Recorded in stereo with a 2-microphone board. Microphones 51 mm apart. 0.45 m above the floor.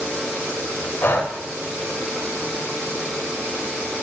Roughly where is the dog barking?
I don't hear a dog barking.